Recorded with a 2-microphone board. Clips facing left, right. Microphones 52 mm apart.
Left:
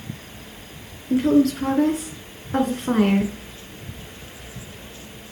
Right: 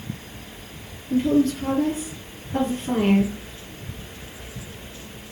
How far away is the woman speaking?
About 4 m.